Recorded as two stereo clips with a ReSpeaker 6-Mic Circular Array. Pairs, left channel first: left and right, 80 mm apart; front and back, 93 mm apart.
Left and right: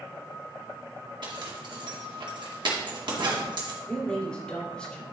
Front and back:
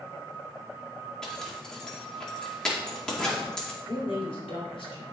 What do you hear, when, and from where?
1.2 s a zipper: 85° right, 2 m
3.8 s a woman speaking: 10° left, 3 m